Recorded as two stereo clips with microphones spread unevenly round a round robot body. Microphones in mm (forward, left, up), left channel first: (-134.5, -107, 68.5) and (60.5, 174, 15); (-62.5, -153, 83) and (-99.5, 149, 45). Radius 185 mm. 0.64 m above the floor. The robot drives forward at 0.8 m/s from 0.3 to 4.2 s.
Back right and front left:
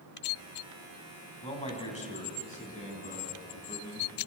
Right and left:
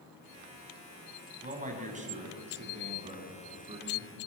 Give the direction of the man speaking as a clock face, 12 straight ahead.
7 o'clock.